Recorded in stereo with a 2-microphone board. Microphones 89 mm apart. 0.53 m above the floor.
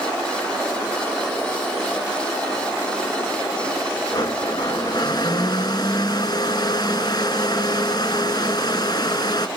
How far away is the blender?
About 1.1 m.